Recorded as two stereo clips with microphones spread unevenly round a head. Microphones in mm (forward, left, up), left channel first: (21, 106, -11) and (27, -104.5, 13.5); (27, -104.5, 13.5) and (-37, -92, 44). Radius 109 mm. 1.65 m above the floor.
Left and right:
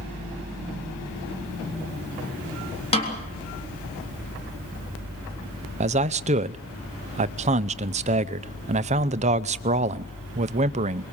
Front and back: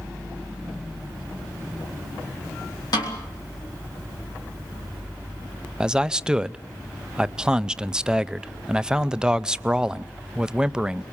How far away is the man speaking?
About 0.5 m.